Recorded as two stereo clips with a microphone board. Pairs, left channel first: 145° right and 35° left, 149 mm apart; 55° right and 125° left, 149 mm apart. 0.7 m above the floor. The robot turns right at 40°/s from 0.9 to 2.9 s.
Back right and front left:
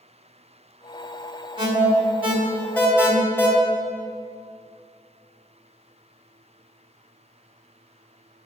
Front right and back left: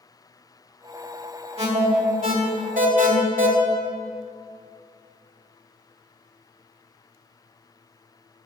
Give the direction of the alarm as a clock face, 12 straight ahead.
9 o'clock.